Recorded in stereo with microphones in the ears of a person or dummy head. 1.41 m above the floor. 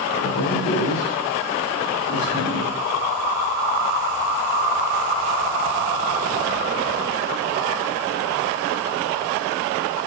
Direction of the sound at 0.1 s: 65° left (ahead or behind).